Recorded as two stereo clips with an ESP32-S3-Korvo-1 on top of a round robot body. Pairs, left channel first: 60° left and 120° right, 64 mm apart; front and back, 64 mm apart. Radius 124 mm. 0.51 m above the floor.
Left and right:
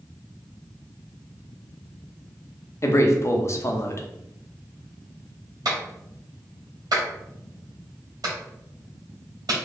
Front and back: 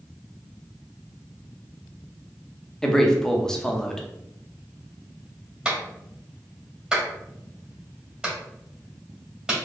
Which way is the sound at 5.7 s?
105° right.